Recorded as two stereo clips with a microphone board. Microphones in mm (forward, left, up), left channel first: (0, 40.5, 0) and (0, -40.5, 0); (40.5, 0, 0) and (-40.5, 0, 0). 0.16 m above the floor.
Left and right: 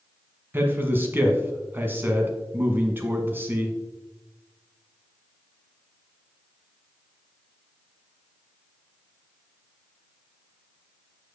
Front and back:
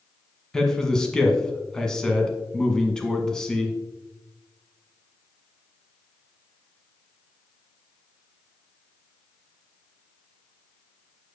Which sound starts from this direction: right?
A man speaking, at 0.5 s.